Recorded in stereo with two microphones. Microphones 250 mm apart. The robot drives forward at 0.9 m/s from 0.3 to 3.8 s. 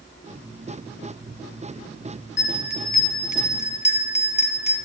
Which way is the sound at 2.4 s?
45° left (ahead or behind).